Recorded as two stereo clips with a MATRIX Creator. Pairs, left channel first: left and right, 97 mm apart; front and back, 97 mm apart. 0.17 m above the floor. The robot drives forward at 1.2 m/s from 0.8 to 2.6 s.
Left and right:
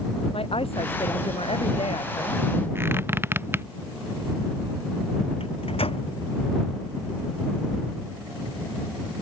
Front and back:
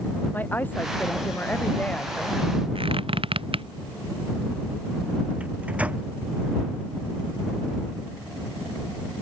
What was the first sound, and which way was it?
A woman speaking, 70° left.